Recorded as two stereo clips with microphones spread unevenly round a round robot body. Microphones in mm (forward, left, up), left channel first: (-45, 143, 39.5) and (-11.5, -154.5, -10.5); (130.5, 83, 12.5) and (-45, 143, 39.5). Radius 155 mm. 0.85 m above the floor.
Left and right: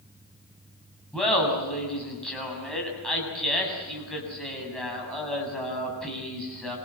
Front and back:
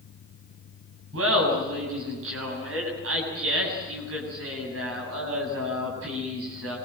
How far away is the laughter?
About 7.5 m.